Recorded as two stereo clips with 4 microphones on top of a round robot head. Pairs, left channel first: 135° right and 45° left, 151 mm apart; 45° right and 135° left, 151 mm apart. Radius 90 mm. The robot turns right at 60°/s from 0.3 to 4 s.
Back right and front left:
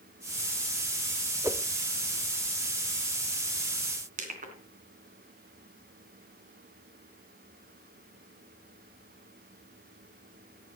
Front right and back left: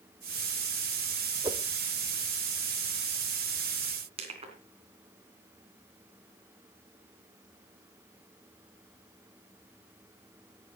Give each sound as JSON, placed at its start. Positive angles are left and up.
{"t": 1.4, "sound": "a whoosh", "azimuth_deg": 100, "distance_m": 1.0}
{"t": 4.2, "sound": "crushing", "azimuth_deg": 80, "distance_m": 3.0}